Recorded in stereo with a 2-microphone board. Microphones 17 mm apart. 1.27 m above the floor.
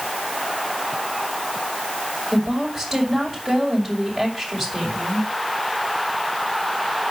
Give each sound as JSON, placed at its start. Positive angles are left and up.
{"t": 2.3, "sound": "a woman speaking", "side_deg": 0, "distance_m": 6.0}